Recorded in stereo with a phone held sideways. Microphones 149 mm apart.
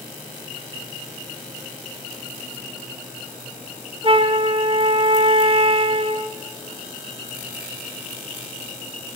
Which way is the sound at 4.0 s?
35° right (ahead or behind).